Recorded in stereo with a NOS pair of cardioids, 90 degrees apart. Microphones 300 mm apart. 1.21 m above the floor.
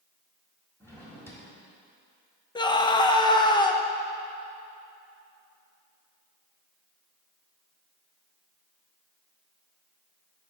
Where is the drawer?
10° left, 1.7 m.